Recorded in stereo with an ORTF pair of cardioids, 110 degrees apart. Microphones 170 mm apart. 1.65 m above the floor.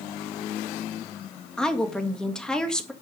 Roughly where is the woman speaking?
Ahead.